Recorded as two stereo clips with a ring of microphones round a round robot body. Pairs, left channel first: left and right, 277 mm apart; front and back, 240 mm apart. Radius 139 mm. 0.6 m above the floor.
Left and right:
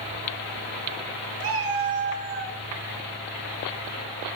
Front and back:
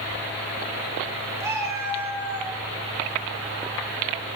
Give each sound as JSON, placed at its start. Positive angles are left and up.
{"t": 1.4, "sound": "a cat meowing", "azimuth_deg": -100, "distance_m": 4.5}